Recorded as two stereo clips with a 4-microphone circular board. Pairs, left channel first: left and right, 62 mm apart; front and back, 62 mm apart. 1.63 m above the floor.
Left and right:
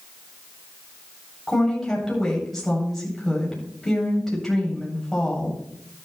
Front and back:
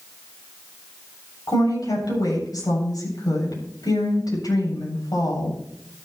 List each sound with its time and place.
1.5 s a woman speaking: 5° left, 8.5 m